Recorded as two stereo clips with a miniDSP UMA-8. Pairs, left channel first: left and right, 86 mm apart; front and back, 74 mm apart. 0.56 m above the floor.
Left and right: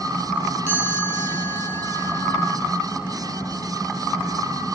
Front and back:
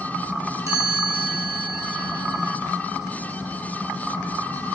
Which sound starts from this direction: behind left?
A chime, at 0.7 s.